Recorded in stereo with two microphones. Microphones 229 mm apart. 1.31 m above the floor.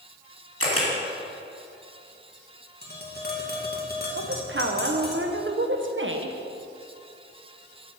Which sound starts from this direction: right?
A woman speaking, at 4.2 s.